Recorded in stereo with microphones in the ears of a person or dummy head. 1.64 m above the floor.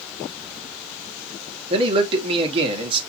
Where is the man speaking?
30° right (ahead or behind), 1.3 m.